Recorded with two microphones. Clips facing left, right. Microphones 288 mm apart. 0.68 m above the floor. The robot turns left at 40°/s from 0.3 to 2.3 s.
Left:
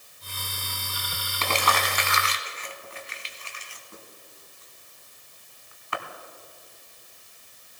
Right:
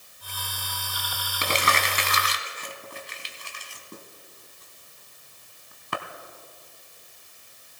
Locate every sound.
1.4 s crumpling: 15° right (ahead or behind), 1.1 m; by 6.0 s 45° right (ahead or behind), 1.1 m